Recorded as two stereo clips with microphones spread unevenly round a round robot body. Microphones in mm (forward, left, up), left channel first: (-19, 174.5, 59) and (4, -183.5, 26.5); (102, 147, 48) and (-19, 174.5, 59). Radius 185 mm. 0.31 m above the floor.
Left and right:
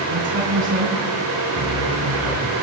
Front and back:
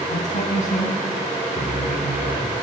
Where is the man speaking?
30° right, 4 m.